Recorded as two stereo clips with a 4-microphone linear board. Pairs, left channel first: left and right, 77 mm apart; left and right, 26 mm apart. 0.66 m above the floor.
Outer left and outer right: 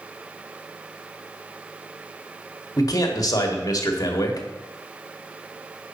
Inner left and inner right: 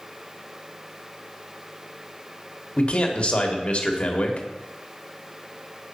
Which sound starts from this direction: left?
A man speaking, at 2.8 s.